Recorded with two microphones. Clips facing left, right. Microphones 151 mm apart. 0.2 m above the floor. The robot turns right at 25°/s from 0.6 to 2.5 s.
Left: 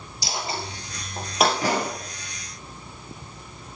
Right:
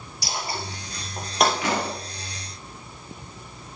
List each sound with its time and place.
0.2 s a dropped coin: 25° left (ahead or behind), 1.7 m; by 1.5 s centre (ahead or behind), 1.7 m
1.6 s a pop: 40° left (ahead or behind), 2.5 m; by 1.9 s 35° left (ahead or behind), 2.5 m